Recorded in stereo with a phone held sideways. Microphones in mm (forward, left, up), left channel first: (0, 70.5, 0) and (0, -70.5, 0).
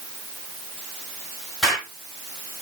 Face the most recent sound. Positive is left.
turn(degrees=0)  # may be behind; listen again after turning